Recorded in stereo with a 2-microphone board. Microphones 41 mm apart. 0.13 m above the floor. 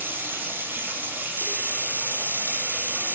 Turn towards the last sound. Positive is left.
turn(degrees=-70)  # may be behind; listen again after turning